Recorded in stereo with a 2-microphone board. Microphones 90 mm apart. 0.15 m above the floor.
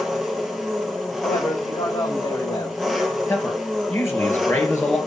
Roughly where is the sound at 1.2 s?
Left.